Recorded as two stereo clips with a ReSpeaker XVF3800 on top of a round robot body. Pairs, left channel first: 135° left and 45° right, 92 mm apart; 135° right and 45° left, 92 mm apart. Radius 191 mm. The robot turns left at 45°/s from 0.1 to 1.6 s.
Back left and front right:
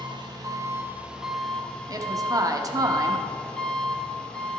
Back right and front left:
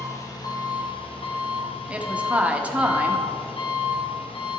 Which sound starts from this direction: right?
An engine running, at 0.0 s.